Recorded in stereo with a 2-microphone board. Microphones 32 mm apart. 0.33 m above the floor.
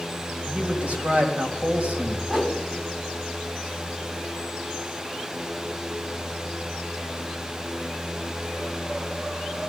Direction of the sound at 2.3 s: 30° right (ahead or behind).